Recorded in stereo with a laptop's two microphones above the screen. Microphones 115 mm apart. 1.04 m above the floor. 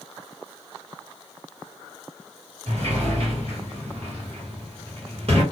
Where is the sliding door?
60° right (ahead or behind), 1.3 m.